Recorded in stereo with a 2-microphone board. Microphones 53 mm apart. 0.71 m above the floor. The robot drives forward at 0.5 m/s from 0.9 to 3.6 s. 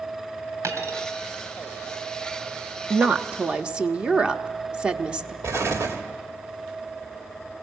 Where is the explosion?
70° right (ahead or behind), 1.8 m.